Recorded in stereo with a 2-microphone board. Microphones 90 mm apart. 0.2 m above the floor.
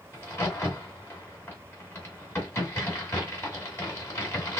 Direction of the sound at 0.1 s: 25° left (ahead or behind).